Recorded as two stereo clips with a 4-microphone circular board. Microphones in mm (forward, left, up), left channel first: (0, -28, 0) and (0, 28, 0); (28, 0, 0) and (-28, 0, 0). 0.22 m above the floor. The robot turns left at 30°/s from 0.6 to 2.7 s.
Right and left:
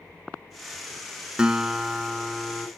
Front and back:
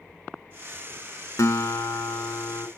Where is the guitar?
15° left, 0.5 m; by 2.7 s 20° right, 0.5 m.